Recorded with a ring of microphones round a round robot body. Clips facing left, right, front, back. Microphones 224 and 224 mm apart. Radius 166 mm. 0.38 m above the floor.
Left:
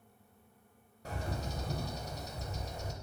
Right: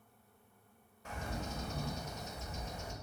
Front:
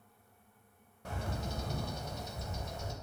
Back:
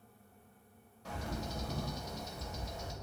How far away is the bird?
About 0.7 m.